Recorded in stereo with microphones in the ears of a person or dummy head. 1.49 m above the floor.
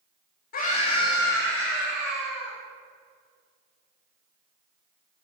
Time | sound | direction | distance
0.5 | a scream | 50° left (ahead or behind) | 1.4 m